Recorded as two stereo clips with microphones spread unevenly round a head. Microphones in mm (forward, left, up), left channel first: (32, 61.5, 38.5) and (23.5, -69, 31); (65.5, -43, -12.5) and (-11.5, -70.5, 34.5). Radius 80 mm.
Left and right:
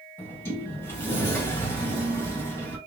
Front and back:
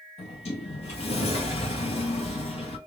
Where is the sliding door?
15° left, 1.9 m.